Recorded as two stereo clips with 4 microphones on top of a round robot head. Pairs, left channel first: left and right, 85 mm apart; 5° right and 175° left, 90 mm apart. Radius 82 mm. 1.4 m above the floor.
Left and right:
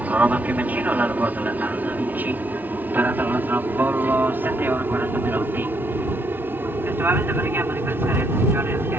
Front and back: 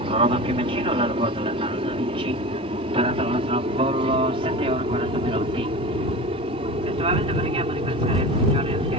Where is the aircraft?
160° right; by 9.0 s 155° right.